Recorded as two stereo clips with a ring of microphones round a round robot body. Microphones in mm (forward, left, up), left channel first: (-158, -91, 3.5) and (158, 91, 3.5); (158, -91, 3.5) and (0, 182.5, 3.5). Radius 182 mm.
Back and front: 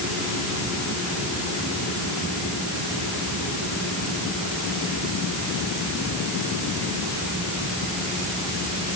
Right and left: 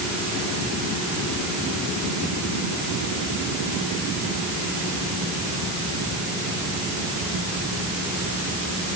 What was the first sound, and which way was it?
Only background noise.